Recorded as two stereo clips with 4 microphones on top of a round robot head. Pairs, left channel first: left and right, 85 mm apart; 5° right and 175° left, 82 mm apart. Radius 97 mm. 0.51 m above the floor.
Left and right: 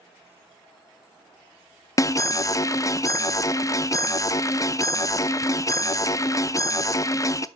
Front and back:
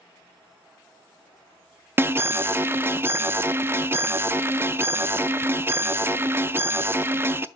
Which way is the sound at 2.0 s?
120° left.